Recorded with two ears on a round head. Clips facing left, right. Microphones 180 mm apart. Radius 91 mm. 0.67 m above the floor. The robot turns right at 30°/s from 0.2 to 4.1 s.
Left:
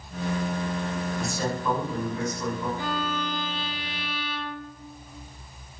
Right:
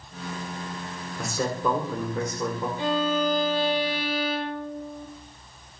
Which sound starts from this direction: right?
A man speaking, at 1.2 s.